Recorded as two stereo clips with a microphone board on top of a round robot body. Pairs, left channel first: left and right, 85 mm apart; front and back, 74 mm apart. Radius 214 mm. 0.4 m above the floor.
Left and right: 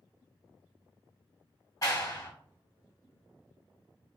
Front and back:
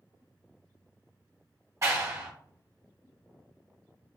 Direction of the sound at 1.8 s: 135° left.